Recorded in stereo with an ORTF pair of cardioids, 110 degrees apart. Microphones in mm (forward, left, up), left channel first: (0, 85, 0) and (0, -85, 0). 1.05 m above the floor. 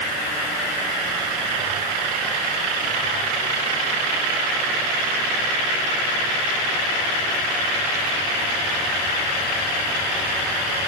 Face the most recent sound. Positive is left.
No sound to turn to.